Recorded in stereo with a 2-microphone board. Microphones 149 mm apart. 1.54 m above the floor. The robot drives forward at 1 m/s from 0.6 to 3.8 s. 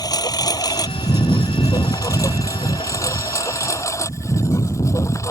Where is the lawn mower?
25° left (ahead or behind); by 5.3 s 20° left (ahead or behind).